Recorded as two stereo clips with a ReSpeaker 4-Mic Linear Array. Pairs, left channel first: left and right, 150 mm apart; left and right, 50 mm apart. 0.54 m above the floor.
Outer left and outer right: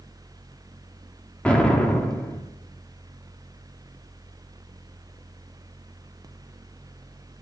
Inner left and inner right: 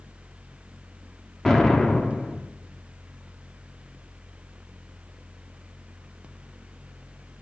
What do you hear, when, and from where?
1.4 s an explosion: 10° left (ahead or behind), 1.3 m